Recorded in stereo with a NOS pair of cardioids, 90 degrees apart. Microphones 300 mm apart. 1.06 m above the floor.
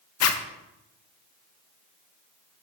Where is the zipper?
60° left, 0.8 m.